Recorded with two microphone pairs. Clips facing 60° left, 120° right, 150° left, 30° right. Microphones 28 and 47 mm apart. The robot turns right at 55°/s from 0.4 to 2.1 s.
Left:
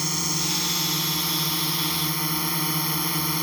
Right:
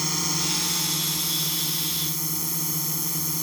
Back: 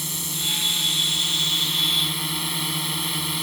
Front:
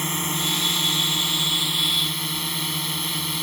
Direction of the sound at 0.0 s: 30° right.